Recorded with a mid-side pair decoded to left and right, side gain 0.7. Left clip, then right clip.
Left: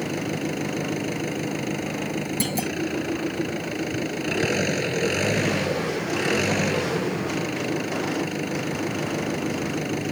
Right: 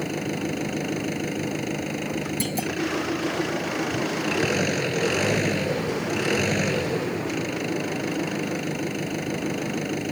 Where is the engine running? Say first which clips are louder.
Left 1 dB; straight ahead.